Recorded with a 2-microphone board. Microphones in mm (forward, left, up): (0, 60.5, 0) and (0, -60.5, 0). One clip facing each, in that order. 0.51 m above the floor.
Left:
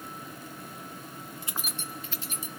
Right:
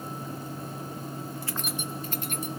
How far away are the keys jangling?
About 0.8 m.